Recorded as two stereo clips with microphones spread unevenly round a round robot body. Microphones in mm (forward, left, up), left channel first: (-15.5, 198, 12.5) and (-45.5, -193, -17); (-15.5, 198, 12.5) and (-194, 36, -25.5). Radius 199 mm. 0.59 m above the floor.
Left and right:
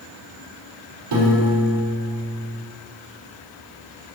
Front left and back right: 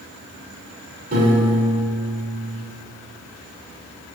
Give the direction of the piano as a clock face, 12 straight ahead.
3 o'clock.